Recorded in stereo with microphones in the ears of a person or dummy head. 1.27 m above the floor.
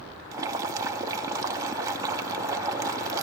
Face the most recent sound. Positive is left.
turn(degrees=-15)  # may be behind; listen again after turning